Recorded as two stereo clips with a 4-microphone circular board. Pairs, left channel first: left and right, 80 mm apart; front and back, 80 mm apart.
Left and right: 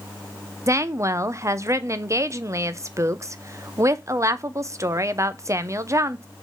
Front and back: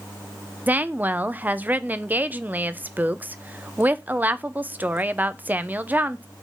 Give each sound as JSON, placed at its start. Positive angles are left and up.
{"t": 0.7, "sound": "a woman speaking", "azimuth_deg": -120, "distance_m": 0.6}